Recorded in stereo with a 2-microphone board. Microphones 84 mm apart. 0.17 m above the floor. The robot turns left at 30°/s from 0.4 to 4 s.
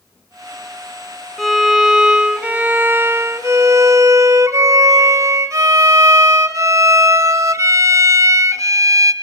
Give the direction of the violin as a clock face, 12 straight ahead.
12 o'clock.